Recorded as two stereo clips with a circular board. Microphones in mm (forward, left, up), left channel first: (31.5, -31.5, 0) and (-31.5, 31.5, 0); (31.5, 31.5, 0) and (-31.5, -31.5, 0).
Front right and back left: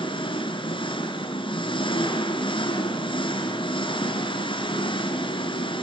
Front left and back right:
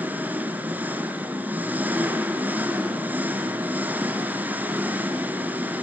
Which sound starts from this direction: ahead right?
An engine running, at 0.0 s.